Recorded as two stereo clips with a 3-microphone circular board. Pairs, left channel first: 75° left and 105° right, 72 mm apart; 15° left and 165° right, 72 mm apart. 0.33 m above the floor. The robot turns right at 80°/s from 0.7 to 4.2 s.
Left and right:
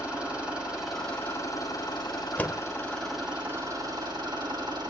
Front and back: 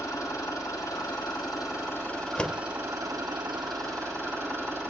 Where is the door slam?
60° left, 0.7 m; by 2.6 s 80° left, 0.7 m.